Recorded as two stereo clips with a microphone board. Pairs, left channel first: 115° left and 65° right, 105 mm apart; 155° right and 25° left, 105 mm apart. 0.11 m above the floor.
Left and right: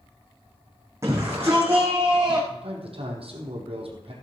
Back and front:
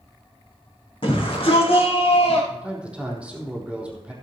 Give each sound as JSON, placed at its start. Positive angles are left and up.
{"t": 1.0, "sound": "a shout", "azimuth_deg": -130, "distance_m": 4.0}
{"t": 2.5, "sound": "a man speaking", "azimuth_deg": -55, "distance_m": 3.5}